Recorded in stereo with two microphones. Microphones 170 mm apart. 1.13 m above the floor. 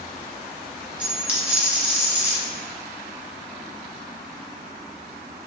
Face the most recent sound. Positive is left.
turn(degrees=-5)  # may be behind; listen again after turning